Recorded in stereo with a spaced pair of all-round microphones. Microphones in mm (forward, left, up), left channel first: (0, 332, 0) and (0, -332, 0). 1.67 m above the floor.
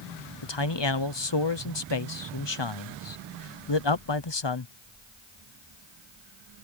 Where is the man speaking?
40° left (ahead or behind).